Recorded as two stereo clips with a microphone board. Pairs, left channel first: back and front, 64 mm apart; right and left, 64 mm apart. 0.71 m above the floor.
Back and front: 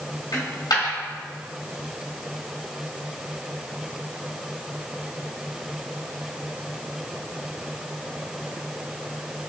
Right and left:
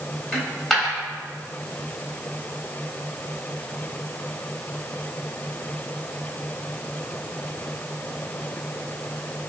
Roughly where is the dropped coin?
Behind.